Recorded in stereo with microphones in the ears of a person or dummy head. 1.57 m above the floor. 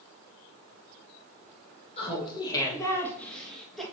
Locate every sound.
2.0 s laughter: 30° left (ahead or behind), 2 m; by 3.8 s centre (ahead or behind), 2.5 m